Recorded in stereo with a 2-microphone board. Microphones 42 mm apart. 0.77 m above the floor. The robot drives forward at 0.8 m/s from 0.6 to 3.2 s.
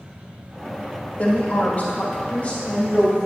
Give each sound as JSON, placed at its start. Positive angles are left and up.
{"t": 1.2, "sound": "a woman speaking", "side_deg": 35, "distance_m": 1.3}